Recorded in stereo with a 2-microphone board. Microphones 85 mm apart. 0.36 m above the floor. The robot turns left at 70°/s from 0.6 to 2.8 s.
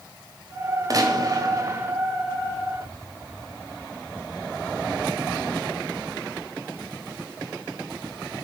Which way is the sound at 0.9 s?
70° right.